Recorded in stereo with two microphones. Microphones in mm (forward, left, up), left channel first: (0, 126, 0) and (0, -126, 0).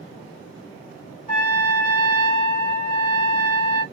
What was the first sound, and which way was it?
A trumpet, 35° left (ahead or behind).